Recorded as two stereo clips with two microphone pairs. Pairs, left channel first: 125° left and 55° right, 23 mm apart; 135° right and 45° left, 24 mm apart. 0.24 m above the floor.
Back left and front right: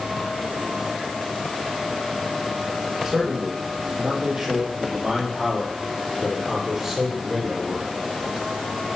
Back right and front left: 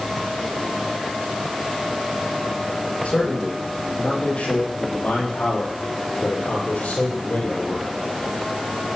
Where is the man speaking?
100° right, 9 m; by 7.9 s 120° right, 7.5 m.